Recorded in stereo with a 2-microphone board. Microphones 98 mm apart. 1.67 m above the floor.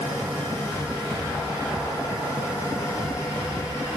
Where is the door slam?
No door slam in this recording.